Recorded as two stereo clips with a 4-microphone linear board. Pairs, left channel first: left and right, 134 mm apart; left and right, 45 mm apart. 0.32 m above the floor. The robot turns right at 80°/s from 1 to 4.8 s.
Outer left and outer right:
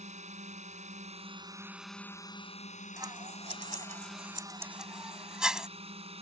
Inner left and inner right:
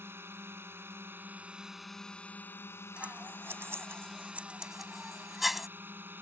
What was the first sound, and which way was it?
A drone, 70° right.